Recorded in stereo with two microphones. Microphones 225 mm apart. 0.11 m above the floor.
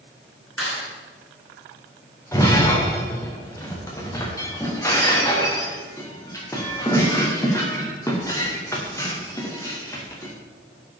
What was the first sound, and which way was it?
A clap, 75° left (ahead or behind).